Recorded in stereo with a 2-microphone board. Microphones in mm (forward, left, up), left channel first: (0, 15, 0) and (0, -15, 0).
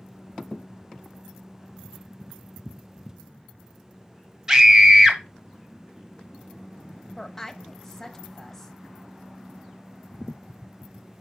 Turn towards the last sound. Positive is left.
turn(degrees=15)  # may be behind; listen again after turning